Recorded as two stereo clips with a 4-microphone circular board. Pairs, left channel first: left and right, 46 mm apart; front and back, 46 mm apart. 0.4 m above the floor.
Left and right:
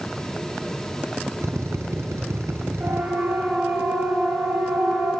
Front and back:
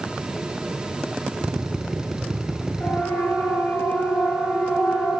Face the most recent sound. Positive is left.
turn(degrees=-35)